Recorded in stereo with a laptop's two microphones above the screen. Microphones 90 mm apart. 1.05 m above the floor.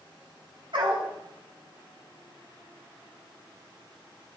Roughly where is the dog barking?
Right.